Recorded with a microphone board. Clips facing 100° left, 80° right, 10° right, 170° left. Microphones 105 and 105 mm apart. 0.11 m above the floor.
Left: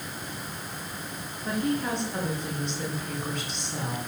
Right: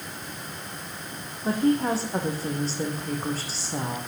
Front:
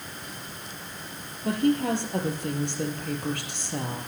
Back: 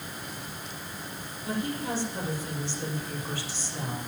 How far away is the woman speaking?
About 3.5 m.